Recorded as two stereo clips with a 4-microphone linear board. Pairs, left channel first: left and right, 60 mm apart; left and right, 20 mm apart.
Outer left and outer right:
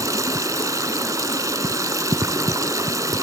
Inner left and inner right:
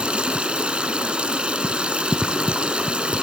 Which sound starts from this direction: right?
Running water, at 0.0 s.